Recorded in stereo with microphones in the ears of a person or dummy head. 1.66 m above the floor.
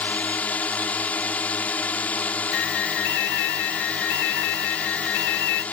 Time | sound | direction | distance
0.0 | a drone | 10° left (ahead or behind) | ?
2.5 | an alarm | 65° left (ahead or behind) | ?